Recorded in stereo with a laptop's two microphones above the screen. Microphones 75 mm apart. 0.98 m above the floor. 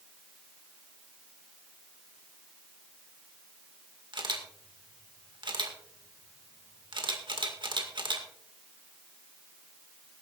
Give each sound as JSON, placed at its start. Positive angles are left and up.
{"t": 4.1, "sound": "a camera shutter", "side_deg": -75, "distance_m": 2.0}